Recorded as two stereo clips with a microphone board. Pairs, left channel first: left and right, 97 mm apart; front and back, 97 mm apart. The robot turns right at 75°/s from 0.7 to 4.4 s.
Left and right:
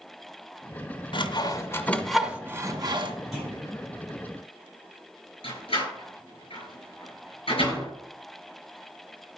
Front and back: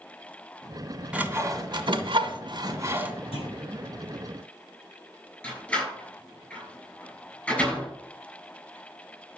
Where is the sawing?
100° left, 1.6 m; by 3.1 s 110° right, 1.6 m.